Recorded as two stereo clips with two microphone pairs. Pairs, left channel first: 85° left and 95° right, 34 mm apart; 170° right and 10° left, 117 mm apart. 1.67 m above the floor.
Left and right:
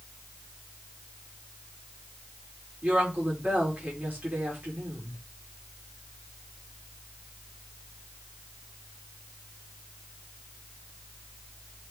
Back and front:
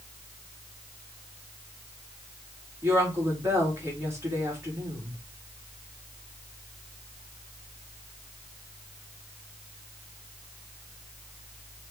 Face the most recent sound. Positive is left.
turn(degrees=-55)